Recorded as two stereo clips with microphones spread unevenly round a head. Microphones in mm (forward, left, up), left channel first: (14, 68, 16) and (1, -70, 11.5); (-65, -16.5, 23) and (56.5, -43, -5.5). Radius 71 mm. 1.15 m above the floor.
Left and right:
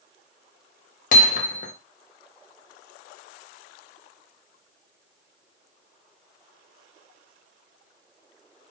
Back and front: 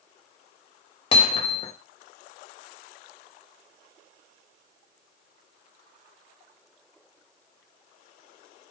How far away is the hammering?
About 0.8 m.